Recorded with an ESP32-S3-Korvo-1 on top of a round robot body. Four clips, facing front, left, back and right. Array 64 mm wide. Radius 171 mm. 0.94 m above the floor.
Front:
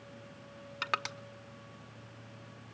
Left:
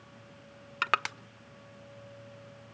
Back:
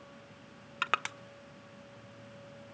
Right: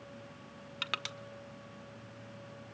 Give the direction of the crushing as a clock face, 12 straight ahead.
8 o'clock.